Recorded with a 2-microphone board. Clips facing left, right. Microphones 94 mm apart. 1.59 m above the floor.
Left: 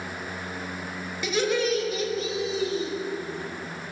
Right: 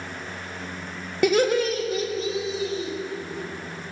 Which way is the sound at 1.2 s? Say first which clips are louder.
Right 5 dB; 55° right (ahead or behind).